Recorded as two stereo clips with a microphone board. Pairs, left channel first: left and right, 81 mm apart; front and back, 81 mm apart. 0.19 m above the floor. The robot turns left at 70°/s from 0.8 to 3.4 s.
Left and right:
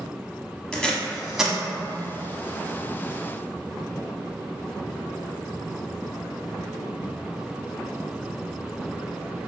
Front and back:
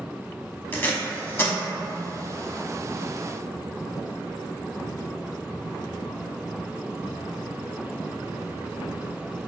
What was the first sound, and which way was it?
Tape being pulled, 30° left.